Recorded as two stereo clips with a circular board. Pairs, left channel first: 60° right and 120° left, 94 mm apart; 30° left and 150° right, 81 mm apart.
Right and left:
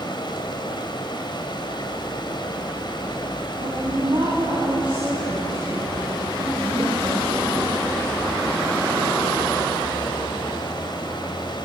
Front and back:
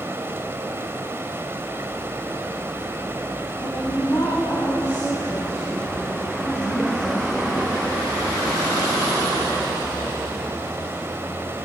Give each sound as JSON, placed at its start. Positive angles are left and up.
{"t": 0.0, "sound": "running water", "azimuth_deg": -90, "distance_m": 2.5}
{"t": 3.6, "sound": "a woman speaking", "azimuth_deg": 80, "distance_m": 8.0}